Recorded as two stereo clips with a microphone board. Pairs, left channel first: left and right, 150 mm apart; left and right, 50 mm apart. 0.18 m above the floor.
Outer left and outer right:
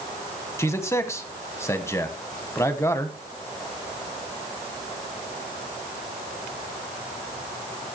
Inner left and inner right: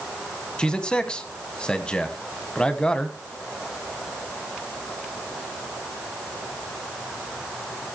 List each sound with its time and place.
0.6 s a man speaking: 20° left (ahead or behind), 1.1 m